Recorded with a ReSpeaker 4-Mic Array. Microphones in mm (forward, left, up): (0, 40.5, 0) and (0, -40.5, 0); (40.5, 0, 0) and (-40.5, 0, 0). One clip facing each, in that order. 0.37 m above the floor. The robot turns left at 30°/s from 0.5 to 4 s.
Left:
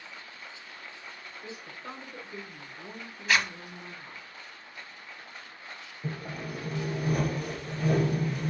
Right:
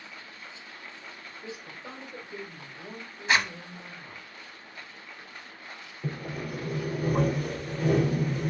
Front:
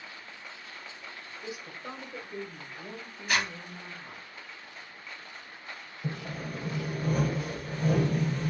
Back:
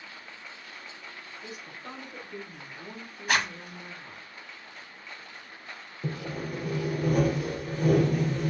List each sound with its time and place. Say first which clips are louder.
1.4 s a woman speaking: right 1 dB, front 3 dB; 40° right, 1.3 m; by 4.3 s 120° right, 1.3 m
3.3 s a zipper: right 1 dB, back 3 dB; 155° right, 0.8 m; by 3.5 s 160° right, 0.8 m
6.0 s sawing: right 2 dB, back 3 dB; 160° right, 3 m